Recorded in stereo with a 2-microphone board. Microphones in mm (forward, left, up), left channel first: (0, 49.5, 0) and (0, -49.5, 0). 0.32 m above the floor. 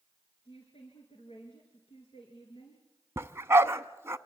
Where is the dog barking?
25° right (ahead or behind), 0.8 m.